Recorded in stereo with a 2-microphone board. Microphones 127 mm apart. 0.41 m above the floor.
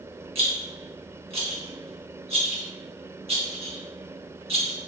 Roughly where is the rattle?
Right.